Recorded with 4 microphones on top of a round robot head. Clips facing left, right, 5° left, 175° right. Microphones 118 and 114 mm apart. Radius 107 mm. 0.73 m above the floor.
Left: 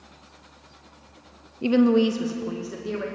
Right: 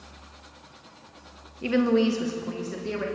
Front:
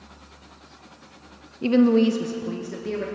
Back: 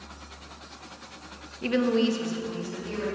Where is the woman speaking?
45° left, 0.6 m; by 3.0 s 5° left, 1.2 m.